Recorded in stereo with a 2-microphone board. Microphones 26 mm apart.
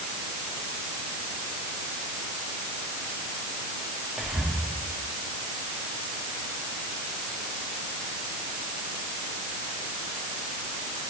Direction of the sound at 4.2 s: 45° right (ahead or behind).